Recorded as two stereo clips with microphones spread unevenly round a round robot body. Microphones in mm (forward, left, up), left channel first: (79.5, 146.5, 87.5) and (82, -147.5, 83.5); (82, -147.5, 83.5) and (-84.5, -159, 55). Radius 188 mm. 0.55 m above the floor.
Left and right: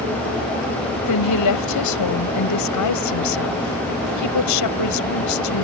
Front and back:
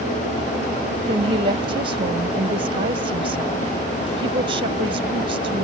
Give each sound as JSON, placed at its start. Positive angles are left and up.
{"t": 1.1, "sound": "a woman speaking", "azimuth_deg": 120}